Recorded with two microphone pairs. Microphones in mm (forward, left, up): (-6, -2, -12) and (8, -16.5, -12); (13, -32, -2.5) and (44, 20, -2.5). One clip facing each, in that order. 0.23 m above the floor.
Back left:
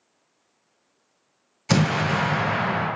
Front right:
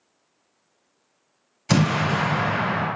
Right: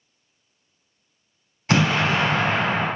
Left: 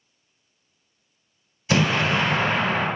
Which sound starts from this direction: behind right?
An explosion, at 1.7 s.